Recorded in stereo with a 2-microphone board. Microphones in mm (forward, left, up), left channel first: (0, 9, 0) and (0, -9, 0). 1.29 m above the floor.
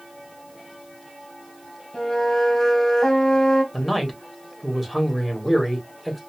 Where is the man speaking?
Centre (ahead or behind), 1.3 m.